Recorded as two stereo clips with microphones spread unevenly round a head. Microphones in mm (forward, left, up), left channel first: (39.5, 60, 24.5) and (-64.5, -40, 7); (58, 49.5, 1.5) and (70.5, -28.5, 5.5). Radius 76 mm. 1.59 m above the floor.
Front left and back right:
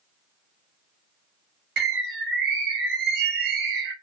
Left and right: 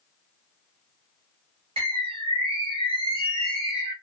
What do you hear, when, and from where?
1.8 s a bird: 110° right, 0.7 m